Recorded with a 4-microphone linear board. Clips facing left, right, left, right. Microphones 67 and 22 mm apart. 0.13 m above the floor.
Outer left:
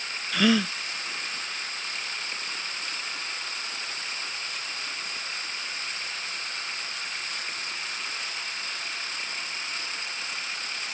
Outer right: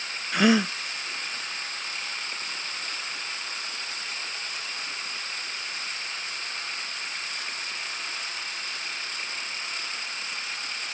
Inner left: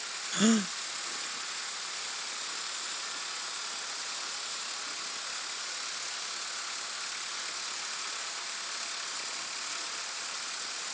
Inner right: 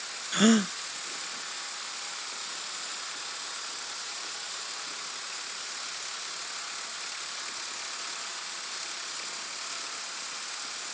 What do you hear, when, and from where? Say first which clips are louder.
0.3 s a gasp: outer right 2 dB, inner right 4 dB; 20° right (ahead or behind)